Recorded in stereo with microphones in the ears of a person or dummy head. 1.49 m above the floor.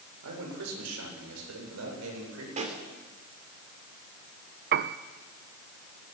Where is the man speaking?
80° right, 6.5 m; by 2.5 s 85° right, 7.5 m.